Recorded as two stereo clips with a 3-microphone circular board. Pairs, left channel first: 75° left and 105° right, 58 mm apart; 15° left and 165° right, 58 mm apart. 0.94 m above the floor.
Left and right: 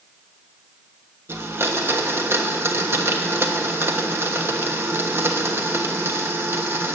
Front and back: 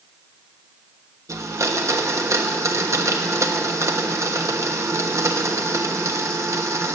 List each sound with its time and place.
1.3 s a blender: 145° right, 1.2 m